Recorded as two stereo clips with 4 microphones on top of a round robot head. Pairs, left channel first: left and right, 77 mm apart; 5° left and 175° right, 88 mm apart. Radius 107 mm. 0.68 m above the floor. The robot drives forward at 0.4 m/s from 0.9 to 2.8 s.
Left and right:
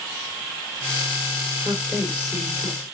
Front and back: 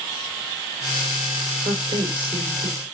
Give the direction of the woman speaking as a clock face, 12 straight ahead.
6 o'clock.